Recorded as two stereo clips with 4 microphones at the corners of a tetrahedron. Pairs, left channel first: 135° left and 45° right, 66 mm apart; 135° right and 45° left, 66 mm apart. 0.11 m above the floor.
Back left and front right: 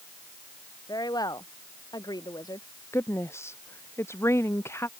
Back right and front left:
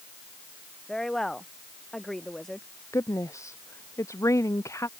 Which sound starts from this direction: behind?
A woman speaking, at 2.9 s.